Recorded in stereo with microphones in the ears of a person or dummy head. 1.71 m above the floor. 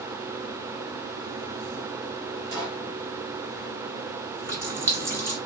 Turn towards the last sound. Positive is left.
turn(degrees=-5)  # may be behind; listen again after turning